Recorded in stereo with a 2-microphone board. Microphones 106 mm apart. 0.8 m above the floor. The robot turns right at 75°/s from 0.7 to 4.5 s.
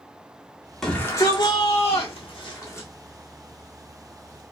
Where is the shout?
5° left, 1.7 m; by 2.9 s 160° left, 1.7 m.